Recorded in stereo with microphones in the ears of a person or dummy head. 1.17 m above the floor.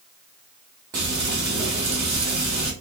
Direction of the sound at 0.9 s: 15° right (ahead or behind).